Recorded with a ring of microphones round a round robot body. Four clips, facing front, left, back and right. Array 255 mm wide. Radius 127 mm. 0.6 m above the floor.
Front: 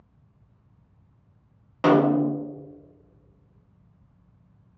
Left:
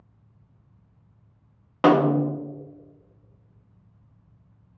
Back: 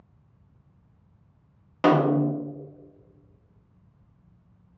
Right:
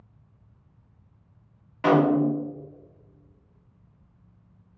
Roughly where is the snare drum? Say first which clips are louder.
Left 1 dB, front 1 dB; left.